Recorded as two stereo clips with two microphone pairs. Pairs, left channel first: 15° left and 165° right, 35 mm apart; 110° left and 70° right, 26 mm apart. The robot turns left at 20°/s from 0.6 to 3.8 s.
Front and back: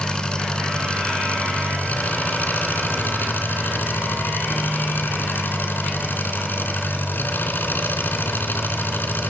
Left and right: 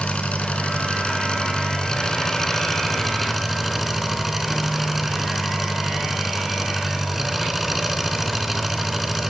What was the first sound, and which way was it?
An engine running, 80° left.